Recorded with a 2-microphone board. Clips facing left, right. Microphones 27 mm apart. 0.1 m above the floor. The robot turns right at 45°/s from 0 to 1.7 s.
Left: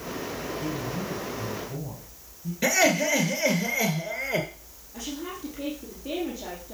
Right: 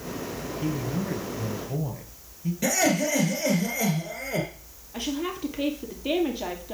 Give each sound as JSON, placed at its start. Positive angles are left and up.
{"t": 0.6, "sound": "a man speaking", "azimuth_deg": -150, "distance_m": 2.0}
{"t": 2.6, "sound": "laughter", "side_deg": 35, "distance_m": 1.4}
{"t": 4.9, "sound": "a woman speaking", "side_deg": -55, "distance_m": 2.0}